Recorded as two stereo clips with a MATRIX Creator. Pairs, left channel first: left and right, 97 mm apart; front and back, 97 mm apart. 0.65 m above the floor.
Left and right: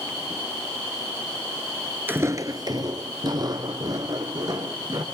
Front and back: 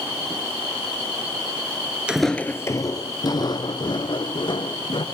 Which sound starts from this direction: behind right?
Footsteps, at 2.1 s.